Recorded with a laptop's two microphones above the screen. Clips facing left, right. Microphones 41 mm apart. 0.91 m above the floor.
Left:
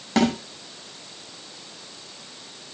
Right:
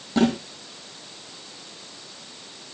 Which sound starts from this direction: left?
A snare drum, at 0.2 s.